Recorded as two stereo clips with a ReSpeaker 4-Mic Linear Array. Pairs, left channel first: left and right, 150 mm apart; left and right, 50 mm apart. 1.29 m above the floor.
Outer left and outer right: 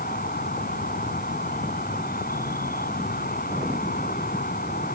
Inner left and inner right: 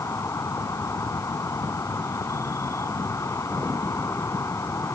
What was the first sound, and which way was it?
An insect, 85° left.